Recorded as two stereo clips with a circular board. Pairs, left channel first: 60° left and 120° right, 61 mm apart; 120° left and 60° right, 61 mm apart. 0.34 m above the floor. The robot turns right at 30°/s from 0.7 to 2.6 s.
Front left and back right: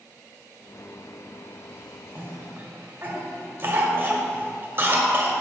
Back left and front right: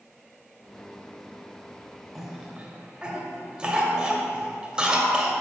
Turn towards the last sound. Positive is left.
turn(degrees=-125)